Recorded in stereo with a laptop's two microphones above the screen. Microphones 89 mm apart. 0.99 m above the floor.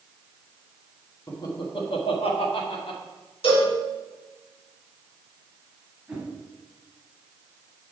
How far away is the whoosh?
About 2 m.